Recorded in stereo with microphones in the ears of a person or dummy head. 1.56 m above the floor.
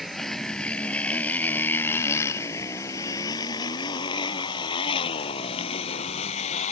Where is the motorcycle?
Centre (ahead or behind); by 6.7 s 40° left (ahead or behind).